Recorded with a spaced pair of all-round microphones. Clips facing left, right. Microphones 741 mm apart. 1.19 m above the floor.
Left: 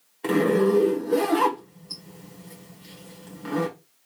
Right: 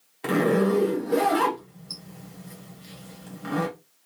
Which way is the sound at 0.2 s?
40° right (ahead or behind).